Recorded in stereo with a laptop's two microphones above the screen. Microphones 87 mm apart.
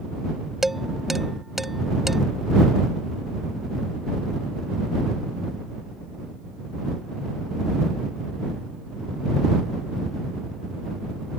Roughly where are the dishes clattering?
Centre.